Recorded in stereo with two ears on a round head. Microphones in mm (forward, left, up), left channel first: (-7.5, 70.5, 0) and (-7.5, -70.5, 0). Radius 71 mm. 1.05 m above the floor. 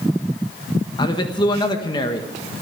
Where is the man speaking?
30° left (ahead or behind), 1.4 m.